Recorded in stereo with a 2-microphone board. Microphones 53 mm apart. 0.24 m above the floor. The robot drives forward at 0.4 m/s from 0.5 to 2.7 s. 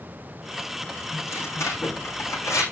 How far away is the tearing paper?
About 5.5 m.